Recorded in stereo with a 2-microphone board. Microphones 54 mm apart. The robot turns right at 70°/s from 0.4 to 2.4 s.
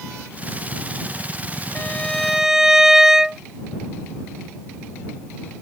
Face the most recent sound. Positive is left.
turn(degrees=-170)